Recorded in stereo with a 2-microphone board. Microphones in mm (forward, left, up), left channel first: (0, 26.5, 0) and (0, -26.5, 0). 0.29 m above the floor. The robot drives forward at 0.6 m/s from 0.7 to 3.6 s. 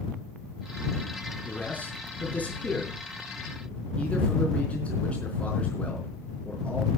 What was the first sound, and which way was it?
A man speaking, 30° left (ahead or behind).